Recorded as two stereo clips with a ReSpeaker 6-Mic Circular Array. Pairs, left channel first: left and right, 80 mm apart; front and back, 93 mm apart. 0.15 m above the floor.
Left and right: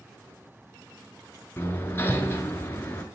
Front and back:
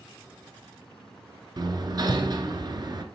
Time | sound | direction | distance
1.6 | hammering | 145° left | 0.7 m